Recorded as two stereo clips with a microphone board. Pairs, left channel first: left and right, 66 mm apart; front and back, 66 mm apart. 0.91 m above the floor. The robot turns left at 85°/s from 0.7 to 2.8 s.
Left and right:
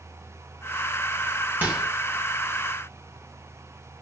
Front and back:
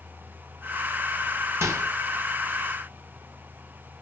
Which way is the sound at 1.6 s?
145° right.